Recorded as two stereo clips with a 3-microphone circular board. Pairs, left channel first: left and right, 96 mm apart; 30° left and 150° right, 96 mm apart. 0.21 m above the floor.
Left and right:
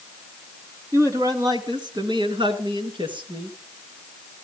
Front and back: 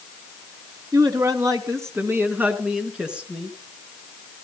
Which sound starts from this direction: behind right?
A man speaking, at 0.9 s.